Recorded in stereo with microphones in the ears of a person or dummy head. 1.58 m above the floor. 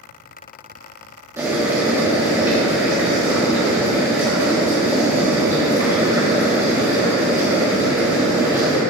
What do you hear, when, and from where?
1.4 s boiling: 20° right (ahead or behind), 1.6 m